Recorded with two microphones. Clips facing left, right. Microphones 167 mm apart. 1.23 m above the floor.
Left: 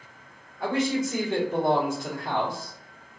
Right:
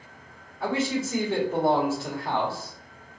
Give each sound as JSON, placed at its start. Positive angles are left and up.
{"t": 0.6, "sound": "a man speaking", "side_deg": -5, "distance_m": 1.2}